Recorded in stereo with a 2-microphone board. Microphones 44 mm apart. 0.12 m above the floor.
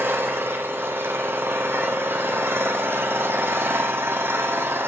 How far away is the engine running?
About 1.6 m.